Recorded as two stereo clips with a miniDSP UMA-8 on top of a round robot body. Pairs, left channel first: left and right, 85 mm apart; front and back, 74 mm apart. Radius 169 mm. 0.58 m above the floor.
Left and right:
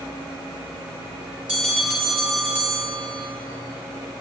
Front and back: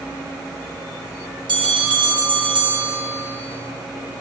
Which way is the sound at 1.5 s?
170° right.